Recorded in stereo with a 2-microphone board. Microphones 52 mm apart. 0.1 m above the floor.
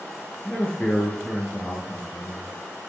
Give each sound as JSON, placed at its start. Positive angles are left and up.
{"t": 0.5, "sound": "a man speaking", "side_deg": 20, "distance_m": 1.6}